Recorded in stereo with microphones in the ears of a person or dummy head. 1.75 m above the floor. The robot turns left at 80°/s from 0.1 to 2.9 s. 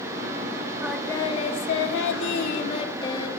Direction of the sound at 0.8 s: 165° right.